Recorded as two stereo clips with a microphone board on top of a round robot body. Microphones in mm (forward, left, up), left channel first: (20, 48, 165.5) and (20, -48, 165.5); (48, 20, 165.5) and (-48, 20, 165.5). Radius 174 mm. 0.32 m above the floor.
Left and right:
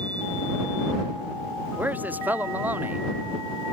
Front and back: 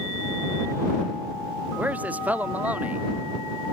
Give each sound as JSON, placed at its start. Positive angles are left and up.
{"t": 1.8, "sound": "a man speaking", "azimuth_deg": -130}